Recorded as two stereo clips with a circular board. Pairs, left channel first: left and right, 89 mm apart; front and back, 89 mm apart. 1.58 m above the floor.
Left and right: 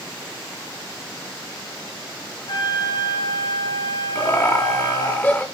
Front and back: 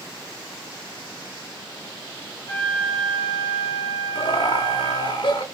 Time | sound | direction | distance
2.5 | a flute | 50° left | 9 m
4.2 | laughter | 20° left | 2.5 m